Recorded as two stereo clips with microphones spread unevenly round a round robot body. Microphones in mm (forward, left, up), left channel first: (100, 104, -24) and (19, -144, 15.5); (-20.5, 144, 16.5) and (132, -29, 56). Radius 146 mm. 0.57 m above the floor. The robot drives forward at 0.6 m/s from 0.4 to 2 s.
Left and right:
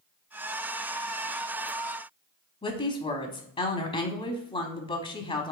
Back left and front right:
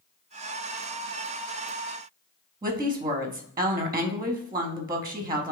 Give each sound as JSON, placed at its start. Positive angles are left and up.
{"t": 2.6, "sound": "a woman speaking", "azimuth_deg": 30, "distance_m": 0.8}